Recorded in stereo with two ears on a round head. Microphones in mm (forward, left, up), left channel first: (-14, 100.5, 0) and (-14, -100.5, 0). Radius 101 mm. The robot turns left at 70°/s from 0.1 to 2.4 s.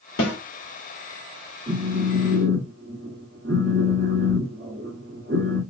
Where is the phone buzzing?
40° right, 1.6 m; by 5.6 s 90° right, 1.6 m.